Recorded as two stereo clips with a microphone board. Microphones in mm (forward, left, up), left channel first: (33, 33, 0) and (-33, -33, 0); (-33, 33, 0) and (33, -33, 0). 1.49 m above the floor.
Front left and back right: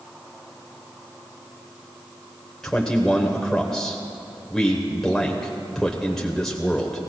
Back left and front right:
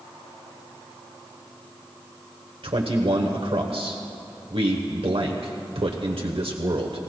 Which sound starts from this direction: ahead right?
A man speaking, at 2.6 s.